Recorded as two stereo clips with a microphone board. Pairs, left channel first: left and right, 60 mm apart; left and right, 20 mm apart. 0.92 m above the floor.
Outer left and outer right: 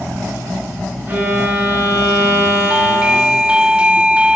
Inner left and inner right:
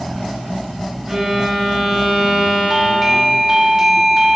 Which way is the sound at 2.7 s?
15° right (ahead or behind).